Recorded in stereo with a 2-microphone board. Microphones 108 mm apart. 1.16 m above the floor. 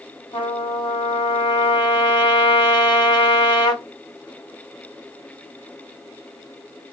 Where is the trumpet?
50° left (ahead or behind), 1.8 m.